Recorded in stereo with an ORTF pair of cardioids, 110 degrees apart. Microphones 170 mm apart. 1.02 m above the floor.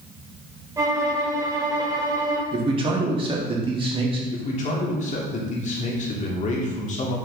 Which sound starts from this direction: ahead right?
A man speaking, at 2.5 s.